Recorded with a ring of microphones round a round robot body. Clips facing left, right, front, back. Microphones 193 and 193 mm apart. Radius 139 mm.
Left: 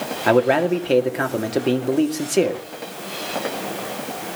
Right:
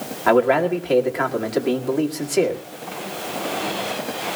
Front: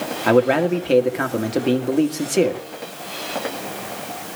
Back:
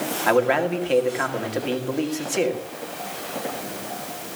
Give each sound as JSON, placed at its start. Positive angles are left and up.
{"t": 0.3, "sound": "a man speaking", "azimuth_deg": 35, "distance_m": 1.9}